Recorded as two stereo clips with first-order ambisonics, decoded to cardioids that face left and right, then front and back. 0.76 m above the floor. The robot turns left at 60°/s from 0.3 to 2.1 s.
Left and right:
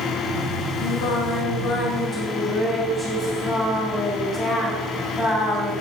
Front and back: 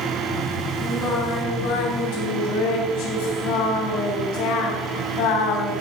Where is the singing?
65° left, 4 m; by 5.7 s 15° right, 4 m.